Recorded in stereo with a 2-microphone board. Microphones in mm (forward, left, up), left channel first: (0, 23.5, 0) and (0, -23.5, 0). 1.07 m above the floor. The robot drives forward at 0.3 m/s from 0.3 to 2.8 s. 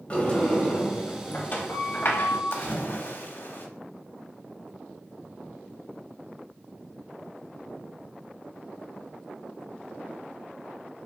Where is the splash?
50° left (ahead or behind), 0.9 m; by 3.7 s 55° left (ahead or behind), 0.9 m.